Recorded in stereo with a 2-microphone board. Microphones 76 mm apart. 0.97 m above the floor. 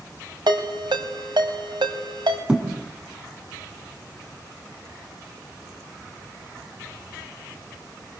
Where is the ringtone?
85° right, 3 m.